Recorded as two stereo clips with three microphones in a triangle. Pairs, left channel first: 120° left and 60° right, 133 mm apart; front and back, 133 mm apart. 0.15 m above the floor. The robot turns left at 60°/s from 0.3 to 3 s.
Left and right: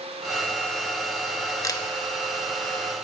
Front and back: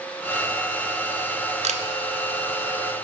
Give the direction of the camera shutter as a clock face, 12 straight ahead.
6 o'clock.